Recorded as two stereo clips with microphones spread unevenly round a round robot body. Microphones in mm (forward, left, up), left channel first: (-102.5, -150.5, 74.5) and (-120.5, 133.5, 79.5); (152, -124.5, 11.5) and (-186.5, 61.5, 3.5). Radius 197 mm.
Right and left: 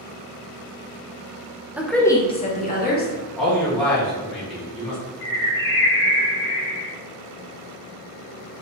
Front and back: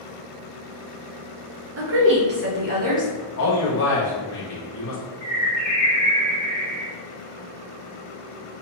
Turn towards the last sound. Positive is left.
turn(degrees=-135)